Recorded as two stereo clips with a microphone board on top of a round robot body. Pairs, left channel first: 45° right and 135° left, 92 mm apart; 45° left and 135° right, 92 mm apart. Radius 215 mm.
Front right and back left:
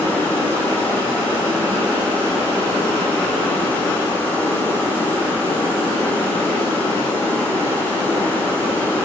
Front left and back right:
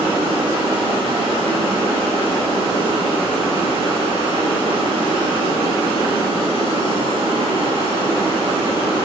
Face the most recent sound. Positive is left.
turn(degrees=-115)